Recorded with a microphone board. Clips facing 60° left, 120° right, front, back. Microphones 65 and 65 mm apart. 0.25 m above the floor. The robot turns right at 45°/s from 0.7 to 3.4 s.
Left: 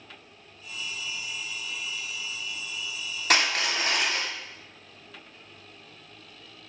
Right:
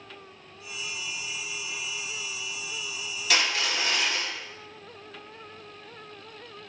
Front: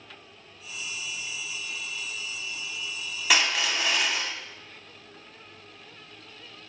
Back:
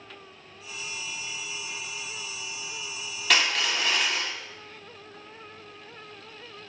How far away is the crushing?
About 1.1 m.